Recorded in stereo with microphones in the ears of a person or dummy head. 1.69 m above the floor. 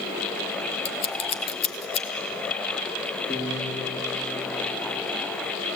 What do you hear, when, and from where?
0.8 s scissors: 30° left (ahead or behind), 1.2 m
3.3 s a piano: 10° left (ahead or behind), 4 m